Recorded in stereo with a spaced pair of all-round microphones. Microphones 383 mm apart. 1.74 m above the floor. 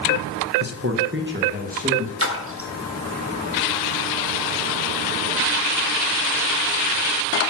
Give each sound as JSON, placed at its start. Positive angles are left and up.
{"t": 0.6, "sound": "a man speaking", "side_deg": -45, "distance_m": 1.2}
{"t": 2.2, "sound": "a splash", "side_deg": -35, "distance_m": 1.8}